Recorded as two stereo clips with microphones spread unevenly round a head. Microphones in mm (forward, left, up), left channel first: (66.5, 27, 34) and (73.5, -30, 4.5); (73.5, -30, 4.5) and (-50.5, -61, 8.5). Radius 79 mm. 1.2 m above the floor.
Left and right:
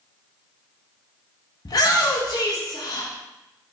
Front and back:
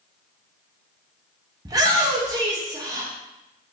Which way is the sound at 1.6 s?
135° left.